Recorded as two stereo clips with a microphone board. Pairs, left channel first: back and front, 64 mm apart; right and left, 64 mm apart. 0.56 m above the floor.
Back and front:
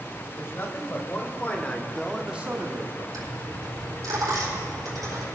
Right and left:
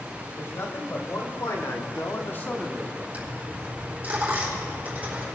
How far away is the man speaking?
About 2.5 m.